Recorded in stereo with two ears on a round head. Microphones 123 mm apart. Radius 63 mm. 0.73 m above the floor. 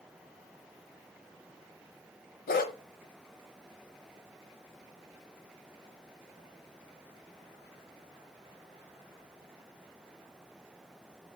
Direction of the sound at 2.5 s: 75° left (ahead or behind).